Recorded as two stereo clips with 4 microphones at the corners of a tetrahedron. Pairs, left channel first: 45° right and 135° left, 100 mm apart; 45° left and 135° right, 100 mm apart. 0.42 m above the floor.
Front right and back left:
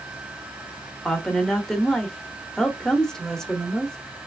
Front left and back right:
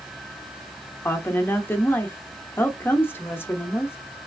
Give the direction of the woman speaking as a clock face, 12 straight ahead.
11 o'clock.